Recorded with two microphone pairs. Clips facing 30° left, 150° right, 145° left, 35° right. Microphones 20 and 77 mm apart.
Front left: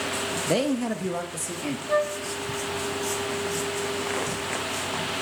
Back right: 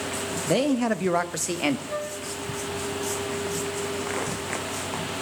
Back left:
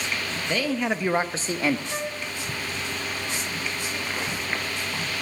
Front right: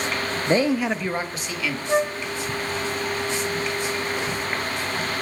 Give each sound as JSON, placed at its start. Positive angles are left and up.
{"t": 0.5, "sound": "a man speaking", "azimuth_deg": -50, "distance_m": 0.7}
{"t": 1.9, "sound": "a flute", "azimuth_deg": -5, "distance_m": 0.7}